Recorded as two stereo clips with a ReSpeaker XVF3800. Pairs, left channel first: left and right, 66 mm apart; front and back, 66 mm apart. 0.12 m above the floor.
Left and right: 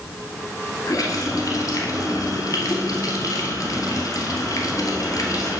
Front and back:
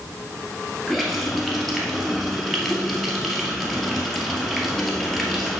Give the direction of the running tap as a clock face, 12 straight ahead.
9 o'clock.